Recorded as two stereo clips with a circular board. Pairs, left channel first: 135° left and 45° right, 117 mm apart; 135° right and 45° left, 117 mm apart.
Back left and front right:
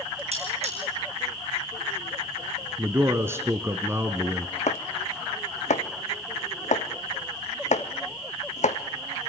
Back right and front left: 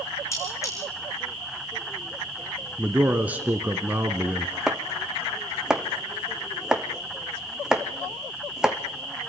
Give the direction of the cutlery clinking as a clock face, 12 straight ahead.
2 o'clock.